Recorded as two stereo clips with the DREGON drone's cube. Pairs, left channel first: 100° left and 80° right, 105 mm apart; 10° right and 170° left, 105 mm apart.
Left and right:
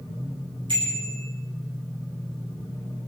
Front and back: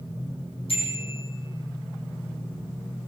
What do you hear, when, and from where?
0.7 s a bicycle bell: 40° right, 7.5 m